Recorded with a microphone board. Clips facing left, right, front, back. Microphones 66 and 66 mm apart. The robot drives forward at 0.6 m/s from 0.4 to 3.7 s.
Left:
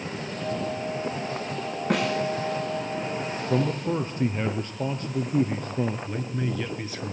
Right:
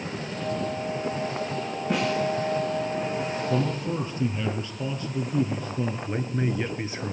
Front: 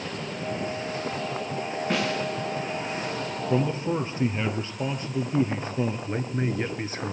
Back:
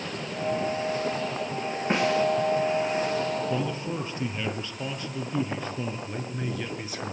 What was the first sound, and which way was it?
A snare drum, 115° left.